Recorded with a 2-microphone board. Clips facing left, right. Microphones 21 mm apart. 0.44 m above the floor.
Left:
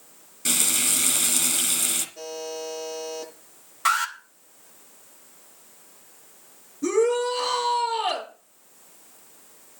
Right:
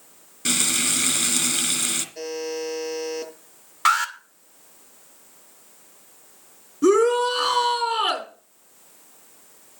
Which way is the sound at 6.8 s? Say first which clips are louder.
Right 4 dB; 80° right.